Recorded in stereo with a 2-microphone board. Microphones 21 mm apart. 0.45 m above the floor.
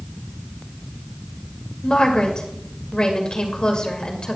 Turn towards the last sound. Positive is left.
turn(degrees=40)  # may be behind; listen again after turning